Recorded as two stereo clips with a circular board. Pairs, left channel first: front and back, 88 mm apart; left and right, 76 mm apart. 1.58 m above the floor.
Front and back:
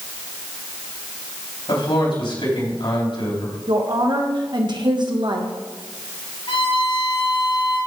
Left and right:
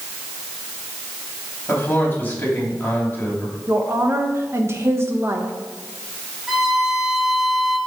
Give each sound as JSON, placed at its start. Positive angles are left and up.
{"t": 1.7, "sound": "a man speaking", "azimuth_deg": 25, "distance_m": 4.0}
{"t": 3.7, "sound": "a woman speaking", "azimuth_deg": -145, "distance_m": 1.6}
{"t": 6.5, "sound": "a violin", "azimuth_deg": -5, "distance_m": 3.0}